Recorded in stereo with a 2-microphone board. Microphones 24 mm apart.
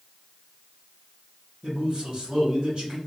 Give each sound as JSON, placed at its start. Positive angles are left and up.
{"t": 1.6, "sound": "a man speaking", "side_deg": -40, "distance_m": 1.4}